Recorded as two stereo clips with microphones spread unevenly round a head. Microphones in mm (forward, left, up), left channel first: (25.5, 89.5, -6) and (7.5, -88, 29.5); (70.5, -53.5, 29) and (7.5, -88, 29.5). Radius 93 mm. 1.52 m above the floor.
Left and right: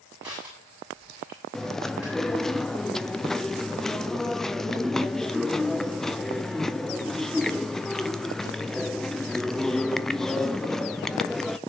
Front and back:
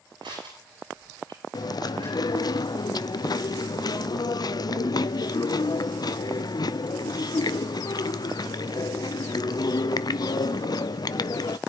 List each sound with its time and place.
0.2 s crushing: straight behind, 8 m
1.5 s chewing: straight ahead, 0.5 m